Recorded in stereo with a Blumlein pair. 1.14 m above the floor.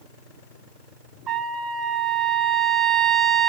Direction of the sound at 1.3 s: 30° right.